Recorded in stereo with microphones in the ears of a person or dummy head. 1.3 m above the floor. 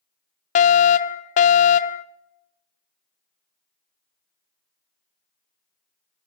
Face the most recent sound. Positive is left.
turn(degrees=35)  # may be behind; listen again after turning